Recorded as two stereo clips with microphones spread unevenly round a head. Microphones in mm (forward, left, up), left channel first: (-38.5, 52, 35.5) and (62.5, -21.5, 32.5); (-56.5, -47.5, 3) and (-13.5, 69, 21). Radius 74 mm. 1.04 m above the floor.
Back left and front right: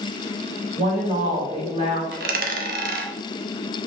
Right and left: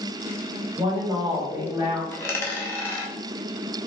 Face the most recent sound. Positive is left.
turn(degrees=-30)